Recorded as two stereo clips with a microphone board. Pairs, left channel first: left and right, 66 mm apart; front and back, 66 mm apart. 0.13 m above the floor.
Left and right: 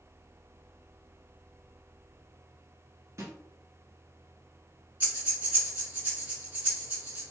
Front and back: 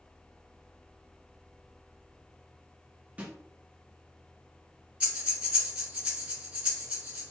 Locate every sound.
3.2 s a snare drum: 120° right, 1.1 m
5.0 s breathing: 130° right, 1.8 m